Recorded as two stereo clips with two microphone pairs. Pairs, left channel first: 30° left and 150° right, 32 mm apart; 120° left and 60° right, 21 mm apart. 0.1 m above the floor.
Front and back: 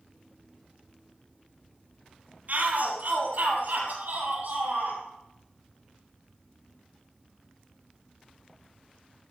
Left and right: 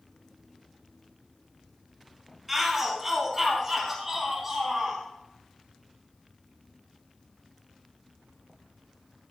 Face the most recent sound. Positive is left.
turn(degrees=-125)